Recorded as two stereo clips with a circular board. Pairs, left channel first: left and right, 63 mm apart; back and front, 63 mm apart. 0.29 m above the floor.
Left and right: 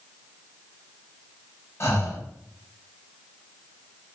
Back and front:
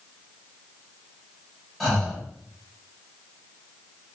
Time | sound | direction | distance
1.8 | breathing | 90° left | 1.1 m